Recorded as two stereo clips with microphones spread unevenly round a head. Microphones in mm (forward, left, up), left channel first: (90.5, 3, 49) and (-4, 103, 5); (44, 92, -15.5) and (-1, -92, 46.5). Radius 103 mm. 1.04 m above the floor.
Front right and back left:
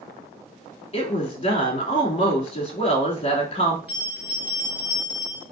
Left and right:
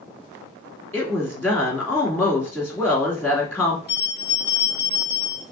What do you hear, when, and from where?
0.9 s a woman speaking: straight ahead, 2.5 m
3.9 s a bell: 60° left, 2.5 m